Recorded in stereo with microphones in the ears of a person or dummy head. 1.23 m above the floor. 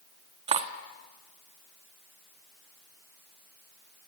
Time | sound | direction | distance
0.5 | cutlery clinking | 40° right (ahead or behind) | 1.2 m